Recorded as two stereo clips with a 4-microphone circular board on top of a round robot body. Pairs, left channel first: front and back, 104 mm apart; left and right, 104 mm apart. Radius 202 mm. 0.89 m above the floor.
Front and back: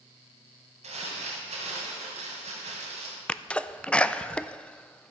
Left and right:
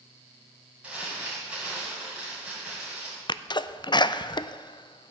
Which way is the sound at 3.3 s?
75° left.